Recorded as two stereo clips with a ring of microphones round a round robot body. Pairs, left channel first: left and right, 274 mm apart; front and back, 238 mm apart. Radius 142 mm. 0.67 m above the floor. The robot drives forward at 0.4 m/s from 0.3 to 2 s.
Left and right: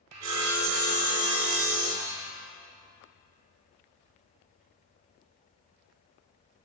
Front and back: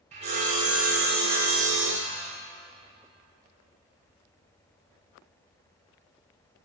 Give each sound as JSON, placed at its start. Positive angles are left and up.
{"t": 0.1, "sound": "sawing", "azimuth_deg": -115, "distance_m": 1.9}